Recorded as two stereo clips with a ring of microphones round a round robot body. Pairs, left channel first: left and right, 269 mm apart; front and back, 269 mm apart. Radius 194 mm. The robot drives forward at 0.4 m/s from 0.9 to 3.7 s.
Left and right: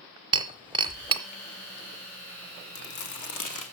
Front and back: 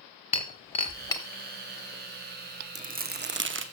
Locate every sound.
0.3 s breaking glass: 45° right, 0.7 m; by 1.2 s 65° right, 0.7 m
2.8 s crumpling: 115° left, 0.8 m; by 3.6 s 135° left, 1.0 m